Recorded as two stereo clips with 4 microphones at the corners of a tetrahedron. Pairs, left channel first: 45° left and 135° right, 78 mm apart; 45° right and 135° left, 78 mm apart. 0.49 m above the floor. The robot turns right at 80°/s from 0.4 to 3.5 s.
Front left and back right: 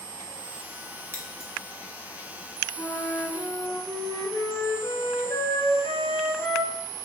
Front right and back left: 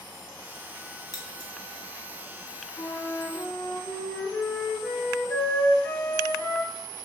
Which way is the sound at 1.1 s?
75° right.